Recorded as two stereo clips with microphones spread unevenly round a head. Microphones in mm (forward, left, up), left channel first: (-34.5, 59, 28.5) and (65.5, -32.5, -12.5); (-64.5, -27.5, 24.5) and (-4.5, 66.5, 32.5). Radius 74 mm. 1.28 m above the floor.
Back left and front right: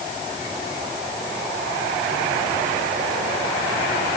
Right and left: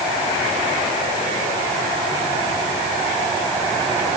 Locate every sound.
Only background noise.